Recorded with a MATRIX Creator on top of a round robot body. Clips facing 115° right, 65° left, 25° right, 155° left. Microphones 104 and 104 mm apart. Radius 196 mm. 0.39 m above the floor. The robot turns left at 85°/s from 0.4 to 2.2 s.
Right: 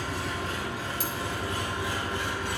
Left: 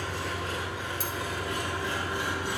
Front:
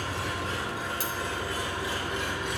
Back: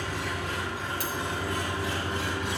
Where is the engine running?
65° right, 2.5 m; by 2.6 s 145° left, 2.5 m.